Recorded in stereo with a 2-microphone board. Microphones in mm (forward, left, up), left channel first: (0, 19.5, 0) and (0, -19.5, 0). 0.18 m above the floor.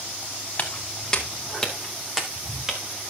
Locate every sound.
0.6 s footsteps: 30° left (ahead or behind), 3 m; by 3.1 s 25° right (ahead or behind), 3 m